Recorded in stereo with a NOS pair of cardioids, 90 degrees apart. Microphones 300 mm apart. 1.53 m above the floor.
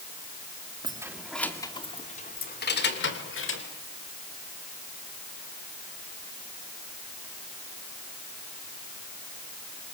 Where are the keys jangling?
15° right, 2 m; by 3.6 s 45° left, 4.5 m.